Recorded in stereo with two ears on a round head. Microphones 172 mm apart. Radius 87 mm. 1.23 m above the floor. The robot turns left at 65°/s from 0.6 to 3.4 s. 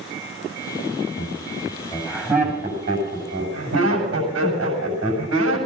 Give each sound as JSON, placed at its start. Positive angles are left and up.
{"t": 1.2, "sound": "laughter", "side_deg": 70, "distance_m": 7.0}